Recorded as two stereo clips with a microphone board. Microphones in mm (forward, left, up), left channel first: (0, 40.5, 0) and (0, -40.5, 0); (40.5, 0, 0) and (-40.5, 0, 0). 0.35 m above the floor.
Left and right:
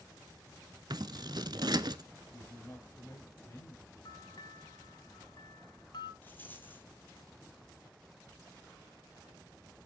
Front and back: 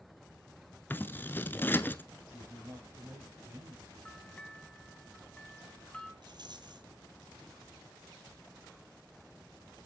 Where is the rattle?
155° left, 1.3 m.